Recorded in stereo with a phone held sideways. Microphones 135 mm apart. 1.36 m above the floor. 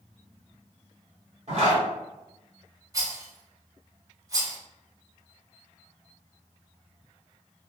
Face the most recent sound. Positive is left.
turn(degrees=-25)  # may be behind; listen again after turning